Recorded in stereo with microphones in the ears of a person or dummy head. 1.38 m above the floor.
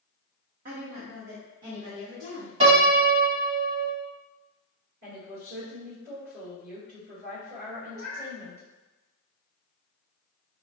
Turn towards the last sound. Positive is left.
turn(degrees=-50)  # may be behind; listen again after turning